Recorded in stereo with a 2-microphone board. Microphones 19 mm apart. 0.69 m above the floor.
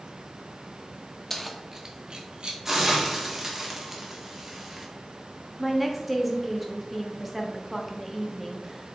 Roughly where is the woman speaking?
Centre.